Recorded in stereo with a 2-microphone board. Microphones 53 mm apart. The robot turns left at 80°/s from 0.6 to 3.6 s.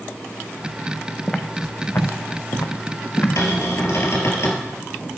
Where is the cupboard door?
70° left (ahead or behind), 3 m; by 4.7 s 55° left (ahead or behind), 3 m.